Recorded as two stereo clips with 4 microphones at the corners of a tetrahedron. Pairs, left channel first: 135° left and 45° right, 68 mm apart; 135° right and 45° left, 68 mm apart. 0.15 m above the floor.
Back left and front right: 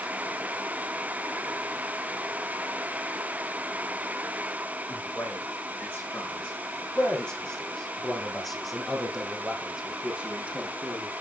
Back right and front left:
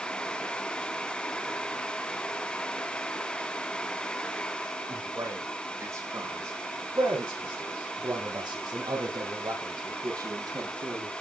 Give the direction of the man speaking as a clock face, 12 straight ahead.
9 o'clock.